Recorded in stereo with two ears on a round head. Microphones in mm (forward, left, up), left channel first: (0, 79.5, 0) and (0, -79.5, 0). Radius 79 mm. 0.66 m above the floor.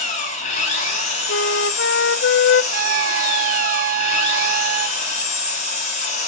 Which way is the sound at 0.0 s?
40° left (ahead or behind).